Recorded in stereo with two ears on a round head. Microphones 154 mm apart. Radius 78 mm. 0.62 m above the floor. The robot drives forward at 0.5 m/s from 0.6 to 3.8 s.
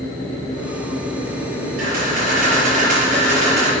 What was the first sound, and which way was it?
A camera shutter, 55° right (ahead or behind).